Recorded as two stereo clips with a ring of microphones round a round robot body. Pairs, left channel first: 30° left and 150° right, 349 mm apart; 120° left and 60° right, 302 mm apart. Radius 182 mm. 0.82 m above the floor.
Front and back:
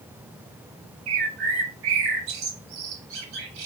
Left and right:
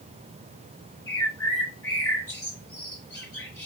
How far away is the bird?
About 1.0 m.